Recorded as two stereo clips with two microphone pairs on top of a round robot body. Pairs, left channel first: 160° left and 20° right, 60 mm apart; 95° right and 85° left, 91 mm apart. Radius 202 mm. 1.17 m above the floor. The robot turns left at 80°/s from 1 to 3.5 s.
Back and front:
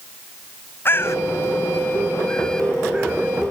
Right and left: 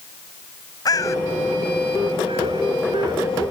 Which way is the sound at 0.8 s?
145° right.